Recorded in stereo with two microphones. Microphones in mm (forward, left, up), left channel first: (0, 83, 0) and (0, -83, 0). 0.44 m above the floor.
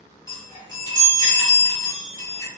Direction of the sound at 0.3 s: 25° right (ahead or behind).